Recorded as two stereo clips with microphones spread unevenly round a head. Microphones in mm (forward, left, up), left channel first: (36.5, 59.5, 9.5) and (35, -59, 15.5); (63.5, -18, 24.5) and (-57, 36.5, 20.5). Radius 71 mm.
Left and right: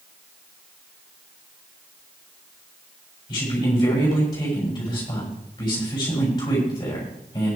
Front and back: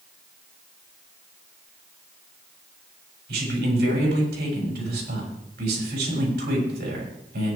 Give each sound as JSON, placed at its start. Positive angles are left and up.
{"t": 3.3, "sound": "a man speaking", "azimuth_deg": 155, "distance_m": 7.0}